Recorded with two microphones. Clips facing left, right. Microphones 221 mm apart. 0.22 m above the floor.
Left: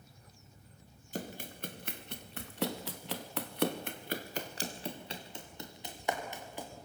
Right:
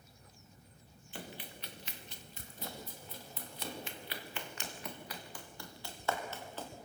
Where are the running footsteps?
40° left (ahead or behind), 2.5 m; by 6.7 s 15° left (ahead or behind), 3.5 m.